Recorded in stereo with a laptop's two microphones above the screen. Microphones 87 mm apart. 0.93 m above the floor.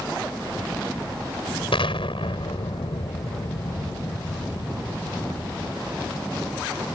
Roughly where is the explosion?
Left.